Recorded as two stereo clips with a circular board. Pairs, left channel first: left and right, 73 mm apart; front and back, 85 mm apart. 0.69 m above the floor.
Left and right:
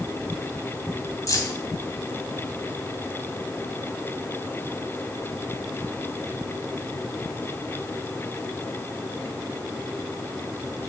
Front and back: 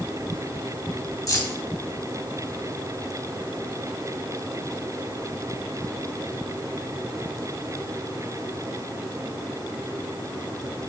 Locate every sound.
1.3 s keys jangling: 50° left, 2.5 m